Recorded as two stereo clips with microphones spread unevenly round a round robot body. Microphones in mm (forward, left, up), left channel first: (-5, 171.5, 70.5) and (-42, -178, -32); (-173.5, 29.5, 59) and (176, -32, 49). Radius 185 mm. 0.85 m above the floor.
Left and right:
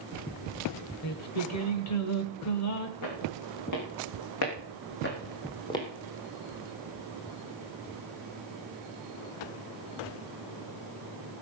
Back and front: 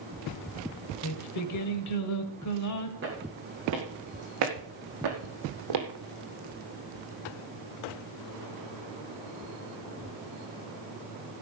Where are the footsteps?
50° left, 5 m; by 5.9 s 10° left, 2.5 m.